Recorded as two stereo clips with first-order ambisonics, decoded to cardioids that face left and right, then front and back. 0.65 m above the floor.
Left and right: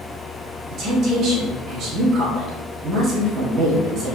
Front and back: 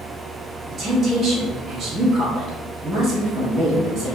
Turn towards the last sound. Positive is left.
turn(degrees=-120)